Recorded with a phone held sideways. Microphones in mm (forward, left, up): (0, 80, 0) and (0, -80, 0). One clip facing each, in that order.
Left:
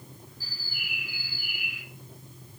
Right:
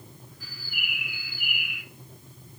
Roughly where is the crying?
No crying in this recording.